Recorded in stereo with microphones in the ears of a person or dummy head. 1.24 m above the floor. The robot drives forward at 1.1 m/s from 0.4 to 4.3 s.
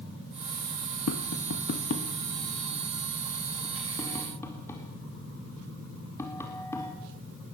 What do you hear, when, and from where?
1.1 s tapping: 75° left (ahead or behind), 1.0 m; by 6.9 s 15° left (ahead or behind), 3.5 m